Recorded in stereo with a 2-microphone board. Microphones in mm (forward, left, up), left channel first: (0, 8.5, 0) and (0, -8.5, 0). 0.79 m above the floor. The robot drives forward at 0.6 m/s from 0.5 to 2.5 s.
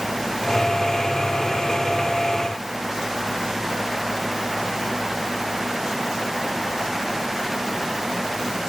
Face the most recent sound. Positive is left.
No sound to turn to.